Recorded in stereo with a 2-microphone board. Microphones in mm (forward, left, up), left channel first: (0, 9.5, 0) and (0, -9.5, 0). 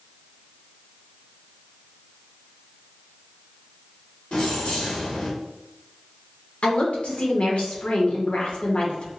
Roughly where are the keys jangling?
Left.